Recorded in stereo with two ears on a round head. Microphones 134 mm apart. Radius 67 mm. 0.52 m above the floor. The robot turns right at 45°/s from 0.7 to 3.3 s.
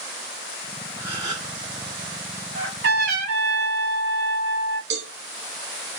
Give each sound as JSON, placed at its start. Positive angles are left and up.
{"t": 1.0, "sound": "a gasp", "side_deg": -10, "distance_m": 3.0}
{"t": 2.5, "sound": "a trumpet", "azimuth_deg": -80, "distance_m": 3.5}
{"t": 4.9, "sound": "a cowbell", "side_deg": -75, "distance_m": 2.5}